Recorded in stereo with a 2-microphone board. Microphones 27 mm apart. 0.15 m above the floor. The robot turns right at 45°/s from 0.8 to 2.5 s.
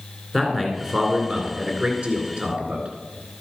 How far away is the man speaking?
About 2 m.